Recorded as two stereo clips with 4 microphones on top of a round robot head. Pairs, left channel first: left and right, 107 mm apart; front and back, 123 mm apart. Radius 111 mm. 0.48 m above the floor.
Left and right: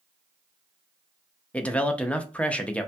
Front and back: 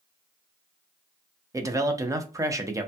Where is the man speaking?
155° left, 0.7 m.